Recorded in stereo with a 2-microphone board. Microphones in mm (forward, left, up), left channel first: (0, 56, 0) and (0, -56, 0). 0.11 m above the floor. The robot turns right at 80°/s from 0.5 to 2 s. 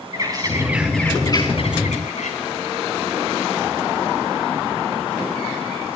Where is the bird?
35° right, 3 m; by 2.4 s 85° left, 3 m.